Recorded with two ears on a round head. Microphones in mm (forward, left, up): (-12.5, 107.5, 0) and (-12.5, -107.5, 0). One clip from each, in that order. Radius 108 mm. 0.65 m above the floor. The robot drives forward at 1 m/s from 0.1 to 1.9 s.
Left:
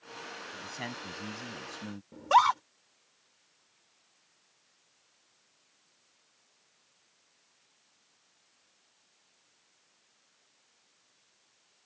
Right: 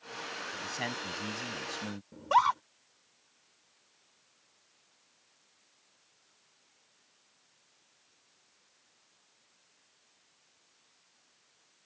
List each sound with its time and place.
0.5 s a man speaking: 15° right (ahead or behind); by 2.0 s 20° right (ahead or behind)
2.1 s a scream: 30° left (ahead or behind)